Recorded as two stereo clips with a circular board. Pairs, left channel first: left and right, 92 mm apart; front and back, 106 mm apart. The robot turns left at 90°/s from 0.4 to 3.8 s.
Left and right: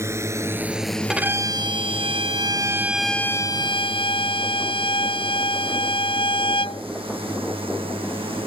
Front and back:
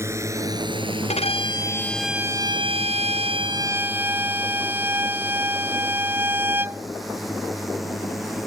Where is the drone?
130° right; by 8.5 s 90° right.